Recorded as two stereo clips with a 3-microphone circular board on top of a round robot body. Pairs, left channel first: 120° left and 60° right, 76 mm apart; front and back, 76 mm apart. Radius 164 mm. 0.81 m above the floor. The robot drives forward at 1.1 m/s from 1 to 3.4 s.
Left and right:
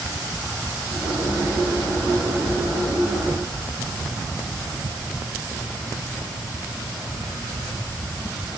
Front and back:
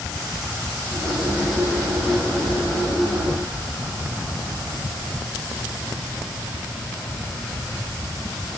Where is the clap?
No clap in this recording.